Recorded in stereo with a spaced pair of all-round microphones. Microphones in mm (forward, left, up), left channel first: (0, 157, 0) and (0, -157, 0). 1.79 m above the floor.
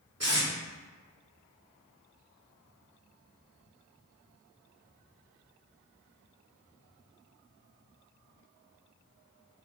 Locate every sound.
0.2 s tape being pulled: 55° right (ahead or behind), 2 m